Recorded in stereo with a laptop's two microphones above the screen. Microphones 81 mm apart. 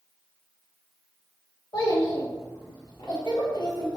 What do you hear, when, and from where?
1.7 s a child speaking: 60° left (ahead or behind), 0.8 m